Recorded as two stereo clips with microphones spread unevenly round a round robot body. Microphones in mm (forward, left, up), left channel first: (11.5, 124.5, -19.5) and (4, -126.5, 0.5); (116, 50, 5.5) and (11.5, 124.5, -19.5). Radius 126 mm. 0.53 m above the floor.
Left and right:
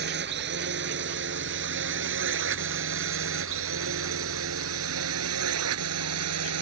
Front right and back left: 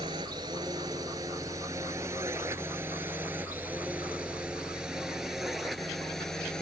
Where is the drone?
140° right; by 6.6 s 125° right.